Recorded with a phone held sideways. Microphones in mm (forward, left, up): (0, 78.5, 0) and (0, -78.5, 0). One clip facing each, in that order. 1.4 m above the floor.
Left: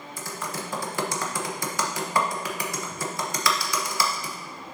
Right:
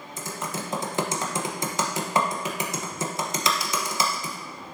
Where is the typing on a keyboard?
20° right (ahead or behind), 1.1 m.